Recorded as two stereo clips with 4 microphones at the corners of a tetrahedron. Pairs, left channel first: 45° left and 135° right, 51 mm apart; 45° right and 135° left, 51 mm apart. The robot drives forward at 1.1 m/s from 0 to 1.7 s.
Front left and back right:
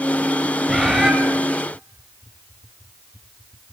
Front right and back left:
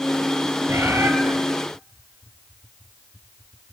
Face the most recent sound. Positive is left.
turn(degrees=150)